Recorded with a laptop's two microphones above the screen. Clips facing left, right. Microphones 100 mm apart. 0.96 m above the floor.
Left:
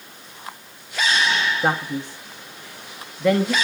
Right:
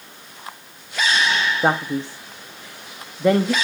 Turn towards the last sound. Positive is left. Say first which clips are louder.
# right 3 dB
turn(degrees=-25)  # may be behind; listen again after turning